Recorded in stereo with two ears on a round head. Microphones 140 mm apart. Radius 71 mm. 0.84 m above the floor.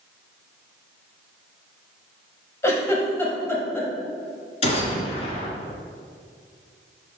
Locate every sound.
2.6 s a giggle: 20° left (ahead or behind), 1.4 m
4.6 s a gunshot: 45° left (ahead or behind), 1.8 m